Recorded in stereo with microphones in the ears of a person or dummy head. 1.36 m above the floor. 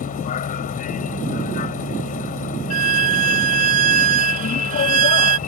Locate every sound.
0.0 s a vehicle: 45° left (ahead or behind)
2.7 s a violin: 40° right (ahead or behind)